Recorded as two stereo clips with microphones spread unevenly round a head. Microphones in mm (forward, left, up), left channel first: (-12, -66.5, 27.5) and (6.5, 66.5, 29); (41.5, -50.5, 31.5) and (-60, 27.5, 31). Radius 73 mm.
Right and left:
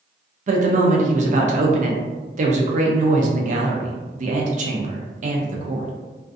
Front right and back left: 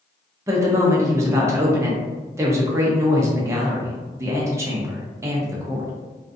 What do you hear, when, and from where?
0.5 s a woman speaking: 80° left, 0.5 m